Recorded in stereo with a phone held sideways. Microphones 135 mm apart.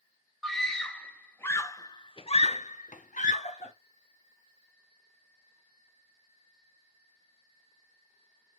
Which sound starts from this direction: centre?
A scream, at 0.4 s.